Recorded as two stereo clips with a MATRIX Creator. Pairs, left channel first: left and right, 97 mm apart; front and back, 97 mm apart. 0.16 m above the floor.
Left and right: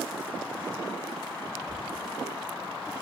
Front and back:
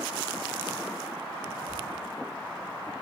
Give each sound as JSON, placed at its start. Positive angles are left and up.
{"t": 1.7, "sound": "a whoosh", "azimuth_deg": 170, "distance_m": 9.0}